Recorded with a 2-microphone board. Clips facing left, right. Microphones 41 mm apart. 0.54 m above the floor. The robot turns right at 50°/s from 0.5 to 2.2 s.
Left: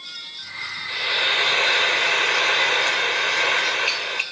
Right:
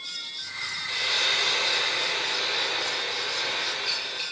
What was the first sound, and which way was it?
Frying, 15° left.